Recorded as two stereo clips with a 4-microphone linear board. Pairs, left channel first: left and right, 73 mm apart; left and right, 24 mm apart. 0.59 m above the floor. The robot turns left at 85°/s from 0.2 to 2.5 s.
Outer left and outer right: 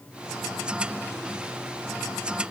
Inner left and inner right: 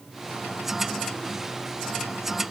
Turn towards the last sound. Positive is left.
No sound to turn to.